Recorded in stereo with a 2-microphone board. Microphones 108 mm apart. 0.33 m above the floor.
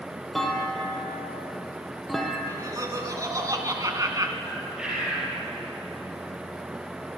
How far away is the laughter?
About 3 m.